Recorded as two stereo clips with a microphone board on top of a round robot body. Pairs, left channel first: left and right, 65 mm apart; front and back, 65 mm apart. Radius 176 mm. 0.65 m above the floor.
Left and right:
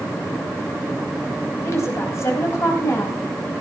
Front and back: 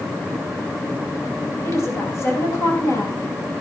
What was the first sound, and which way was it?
A woman speaking, 45° left.